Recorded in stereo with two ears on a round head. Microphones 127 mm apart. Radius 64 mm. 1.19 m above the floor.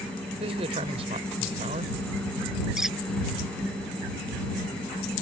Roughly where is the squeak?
Centre.